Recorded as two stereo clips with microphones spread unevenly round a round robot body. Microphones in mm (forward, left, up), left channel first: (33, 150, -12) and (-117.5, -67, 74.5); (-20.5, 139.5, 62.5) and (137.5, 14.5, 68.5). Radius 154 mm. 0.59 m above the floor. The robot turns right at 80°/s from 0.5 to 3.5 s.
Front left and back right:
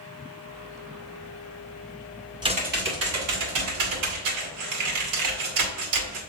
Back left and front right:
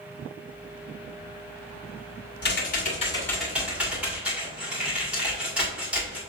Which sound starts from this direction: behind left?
Typing on a keyboard, at 2.4 s.